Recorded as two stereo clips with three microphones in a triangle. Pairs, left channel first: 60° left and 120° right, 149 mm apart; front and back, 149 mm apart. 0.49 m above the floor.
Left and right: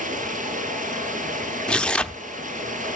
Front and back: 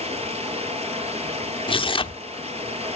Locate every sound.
0.0 s running water: 140° right, 1.7 m
1.7 s tearing paper: 20° right, 0.7 m